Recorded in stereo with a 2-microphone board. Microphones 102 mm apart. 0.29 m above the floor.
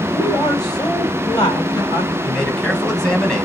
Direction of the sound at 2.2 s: 5° left (ahead or behind).